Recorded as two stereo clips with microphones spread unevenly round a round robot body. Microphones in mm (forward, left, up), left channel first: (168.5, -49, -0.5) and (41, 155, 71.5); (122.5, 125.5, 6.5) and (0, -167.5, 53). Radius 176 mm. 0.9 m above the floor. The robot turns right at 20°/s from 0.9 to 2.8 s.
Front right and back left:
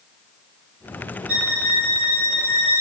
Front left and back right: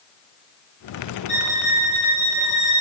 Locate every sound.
1.3 s a violin: straight behind, 1.7 m; by 2.8 s 150° right, 1.7 m